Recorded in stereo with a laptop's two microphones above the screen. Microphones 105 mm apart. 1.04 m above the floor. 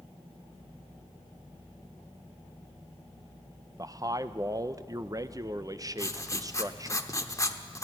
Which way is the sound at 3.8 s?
35° right (ahead or behind).